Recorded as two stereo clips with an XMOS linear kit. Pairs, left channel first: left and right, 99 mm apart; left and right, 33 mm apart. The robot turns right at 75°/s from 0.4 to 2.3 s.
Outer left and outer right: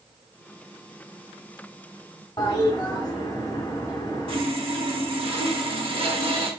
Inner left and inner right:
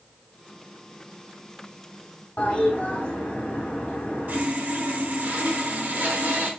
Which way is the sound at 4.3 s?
65° right (ahead or behind).